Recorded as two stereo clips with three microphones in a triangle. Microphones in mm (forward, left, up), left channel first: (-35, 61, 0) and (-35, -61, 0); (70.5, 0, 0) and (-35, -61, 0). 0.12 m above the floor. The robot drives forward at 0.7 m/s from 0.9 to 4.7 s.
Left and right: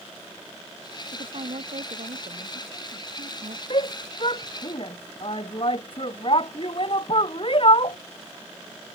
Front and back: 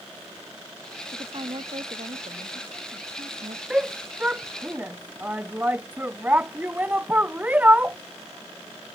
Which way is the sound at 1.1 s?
105° right.